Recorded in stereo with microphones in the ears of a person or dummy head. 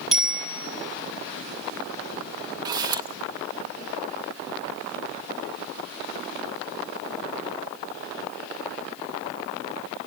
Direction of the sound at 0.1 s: 5° left (ahead or behind).